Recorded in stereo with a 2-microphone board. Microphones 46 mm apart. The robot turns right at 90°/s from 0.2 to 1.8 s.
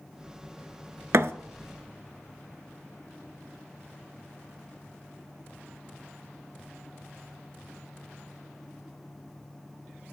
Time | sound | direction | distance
1.1 | a thud | 70° right (ahead or behind) | 0.6 m